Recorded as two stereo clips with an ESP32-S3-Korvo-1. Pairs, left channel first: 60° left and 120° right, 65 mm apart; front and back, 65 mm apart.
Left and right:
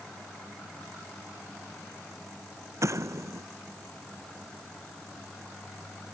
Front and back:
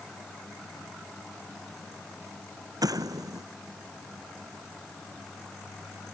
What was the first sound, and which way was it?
An explosion, 160° right.